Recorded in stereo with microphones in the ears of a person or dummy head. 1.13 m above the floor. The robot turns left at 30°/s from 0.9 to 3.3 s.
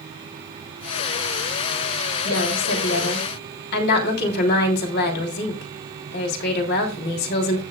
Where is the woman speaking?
90° left, 3 m; by 7.6 s 60° left, 3 m.